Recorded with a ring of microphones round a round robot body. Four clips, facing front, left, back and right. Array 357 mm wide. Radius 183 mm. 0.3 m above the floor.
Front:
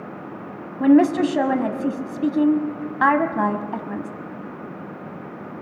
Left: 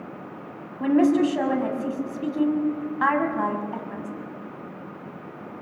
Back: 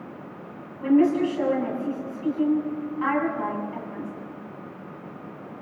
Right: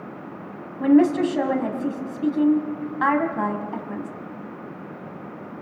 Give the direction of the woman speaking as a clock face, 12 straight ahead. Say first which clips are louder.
Right 2 dB, front 4 dB; 12 o'clock.